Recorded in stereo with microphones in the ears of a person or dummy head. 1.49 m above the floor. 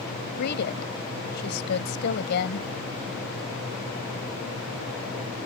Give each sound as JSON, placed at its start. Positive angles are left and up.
{"t": 0.4, "sound": "a woman speaking", "side_deg": 55}